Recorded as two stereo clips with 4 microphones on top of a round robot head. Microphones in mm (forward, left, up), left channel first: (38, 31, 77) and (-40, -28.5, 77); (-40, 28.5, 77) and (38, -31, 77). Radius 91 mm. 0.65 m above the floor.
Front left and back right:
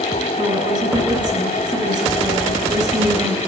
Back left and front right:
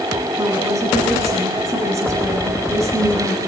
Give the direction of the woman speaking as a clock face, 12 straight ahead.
3 o'clock.